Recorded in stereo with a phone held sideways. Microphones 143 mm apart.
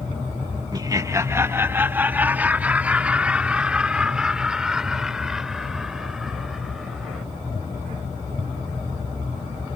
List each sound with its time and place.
0.7 s laughter: 30° right (ahead or behind); by 7.2 s centre (ahead or behind)